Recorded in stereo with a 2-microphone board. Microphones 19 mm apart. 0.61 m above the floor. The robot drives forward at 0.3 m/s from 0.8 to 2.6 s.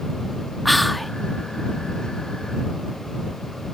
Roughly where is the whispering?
Centre.